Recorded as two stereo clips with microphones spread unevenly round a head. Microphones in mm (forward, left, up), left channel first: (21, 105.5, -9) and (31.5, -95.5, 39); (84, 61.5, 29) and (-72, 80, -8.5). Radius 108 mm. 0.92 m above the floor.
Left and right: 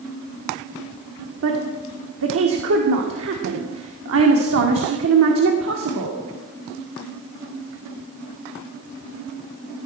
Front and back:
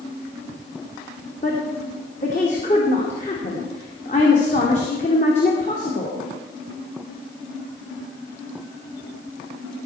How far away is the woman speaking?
About 1.9 m.